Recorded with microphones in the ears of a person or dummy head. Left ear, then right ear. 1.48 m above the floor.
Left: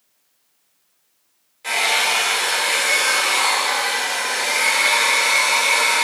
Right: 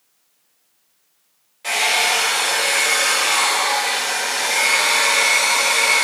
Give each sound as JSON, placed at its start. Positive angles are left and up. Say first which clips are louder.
{"t": 1.6, "sound": "a hair dryer", "louder": "right 1 dB", "side_deg": 0, "distance_m": 3.5}